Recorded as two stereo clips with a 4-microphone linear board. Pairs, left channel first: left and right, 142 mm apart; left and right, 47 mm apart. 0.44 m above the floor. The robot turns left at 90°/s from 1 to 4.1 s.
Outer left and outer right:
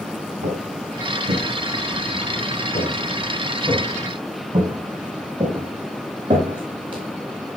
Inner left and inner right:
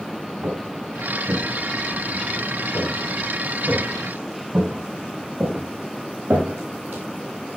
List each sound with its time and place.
0.4 s footsteps: 85° right, 5.5 m; by 7.0 s 35° right (ahead or behind), 8 m